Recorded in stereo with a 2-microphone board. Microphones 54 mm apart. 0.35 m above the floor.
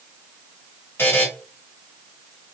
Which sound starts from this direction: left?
A buzzer, at 1.0 s.